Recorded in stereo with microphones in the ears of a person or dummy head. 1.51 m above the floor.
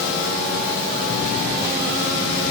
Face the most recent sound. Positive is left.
No sound to turn to.